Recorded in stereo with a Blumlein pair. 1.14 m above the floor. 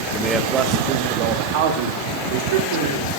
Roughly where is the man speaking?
Ahead.